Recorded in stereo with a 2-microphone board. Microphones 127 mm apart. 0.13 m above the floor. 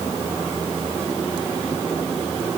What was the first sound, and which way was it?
Only background noise.